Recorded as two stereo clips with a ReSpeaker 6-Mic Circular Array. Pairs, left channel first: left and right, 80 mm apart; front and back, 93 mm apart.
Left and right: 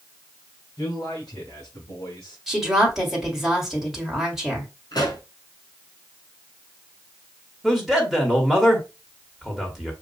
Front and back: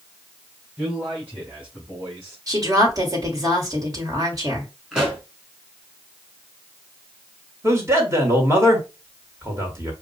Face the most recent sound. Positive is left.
turn(degrees=-170)